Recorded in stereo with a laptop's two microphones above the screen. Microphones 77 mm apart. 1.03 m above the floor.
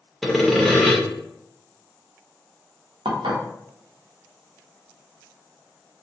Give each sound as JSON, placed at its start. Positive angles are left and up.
{"t": 0.2, "sound": "sawing", "side_deg": 0, "distance_m": 0.7}
{"t": 3.0, "sound": "dishes clattering", "side_deg": -85, "distance_m": 0.7}